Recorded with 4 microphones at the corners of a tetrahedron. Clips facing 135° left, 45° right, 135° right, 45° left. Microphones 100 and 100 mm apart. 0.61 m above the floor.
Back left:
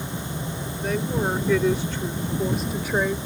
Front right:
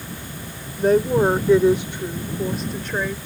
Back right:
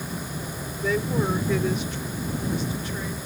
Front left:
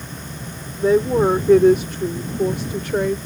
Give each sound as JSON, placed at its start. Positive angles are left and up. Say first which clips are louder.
{"t": 0.8, "sound": "a woman speaking", "louder": "front right 9 dB, front left 10 dB", "azimuth_deg": -10}